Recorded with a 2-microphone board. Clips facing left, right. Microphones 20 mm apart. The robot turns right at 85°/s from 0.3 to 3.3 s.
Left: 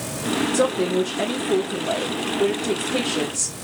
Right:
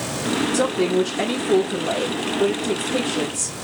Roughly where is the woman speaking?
Centre.